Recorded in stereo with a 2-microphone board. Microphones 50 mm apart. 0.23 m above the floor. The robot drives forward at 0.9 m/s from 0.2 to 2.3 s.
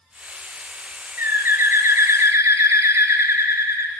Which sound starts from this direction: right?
A bird, at 1.2 s.